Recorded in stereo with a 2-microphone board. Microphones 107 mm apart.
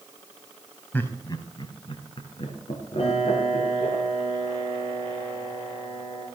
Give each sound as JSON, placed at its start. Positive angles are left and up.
{"t": 0.9, "sound": "laughter", "side_deg": 20, "distance_m": 1.1}
{"t": 3.0, "sound": "a piano", "side_deg": 70, "distance_m": 6.0}